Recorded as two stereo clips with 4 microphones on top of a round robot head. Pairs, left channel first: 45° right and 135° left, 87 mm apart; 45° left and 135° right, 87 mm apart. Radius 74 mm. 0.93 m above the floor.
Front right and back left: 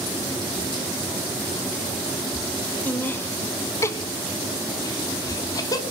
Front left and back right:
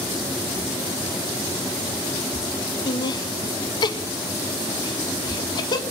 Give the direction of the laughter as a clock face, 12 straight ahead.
11 o'clock.